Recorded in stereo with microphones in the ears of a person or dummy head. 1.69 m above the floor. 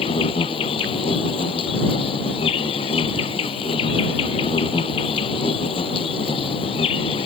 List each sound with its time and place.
0.0 s an insect: 40° left (ahead or behind)